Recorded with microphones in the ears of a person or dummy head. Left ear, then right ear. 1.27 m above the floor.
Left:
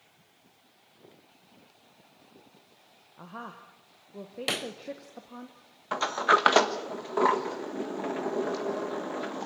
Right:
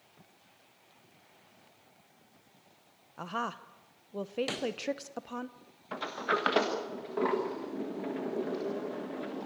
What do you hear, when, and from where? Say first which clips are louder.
3.2 s a woman speaking: right 7 dB; 80° right, 0.7 m
4.5 s a pop: left 3 dB; 25° left (ahead or behind), 0.9 m
5.9 s a sliding door: left 8 dB; 40° left (ahead or behind), 1.5 m